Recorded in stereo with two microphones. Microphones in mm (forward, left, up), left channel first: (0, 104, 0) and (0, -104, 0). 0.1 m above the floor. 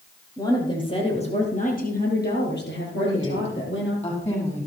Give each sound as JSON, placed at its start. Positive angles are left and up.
{"t": 0.4, "sound": "a woman speaking", "side_deg": 15, "distance_m": 4.0}
{"t": 3.0, "sound": "a woman speaking", "side_deg": 30, "distance_m": 5.5}